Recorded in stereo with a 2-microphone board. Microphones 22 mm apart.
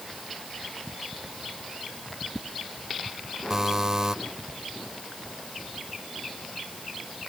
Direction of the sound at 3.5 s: 25° right (ahead or behind).